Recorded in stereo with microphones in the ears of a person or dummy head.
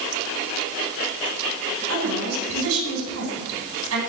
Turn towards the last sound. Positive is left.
turn(degrees=-75)  # may be behind; listen again after turning